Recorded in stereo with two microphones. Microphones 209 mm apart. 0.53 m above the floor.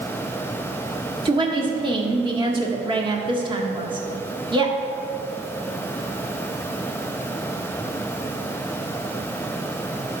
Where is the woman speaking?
20° right (ahead or behind), 1.2 m.